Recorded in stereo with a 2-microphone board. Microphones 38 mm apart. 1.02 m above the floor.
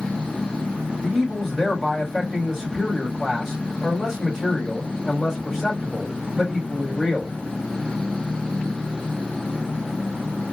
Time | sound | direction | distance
1.0 | a man speaking | 5° left (ahead or behind) | 3.5 m